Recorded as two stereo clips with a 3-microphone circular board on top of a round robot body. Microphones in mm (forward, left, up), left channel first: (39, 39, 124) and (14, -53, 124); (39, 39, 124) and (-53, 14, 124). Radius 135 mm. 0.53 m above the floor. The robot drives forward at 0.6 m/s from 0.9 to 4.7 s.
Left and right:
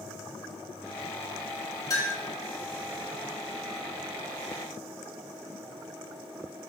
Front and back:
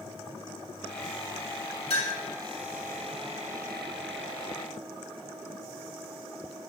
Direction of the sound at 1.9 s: 20° left.